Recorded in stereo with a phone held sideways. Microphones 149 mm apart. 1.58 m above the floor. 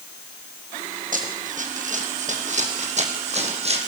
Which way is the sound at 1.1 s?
65° right (ahead or behind).